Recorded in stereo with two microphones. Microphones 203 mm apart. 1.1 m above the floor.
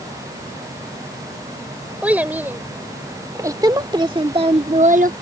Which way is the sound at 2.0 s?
5° right (ahead or behind).